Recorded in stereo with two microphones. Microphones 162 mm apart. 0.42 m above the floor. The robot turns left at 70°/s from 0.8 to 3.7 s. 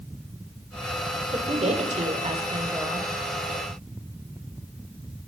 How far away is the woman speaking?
About 1.8 m.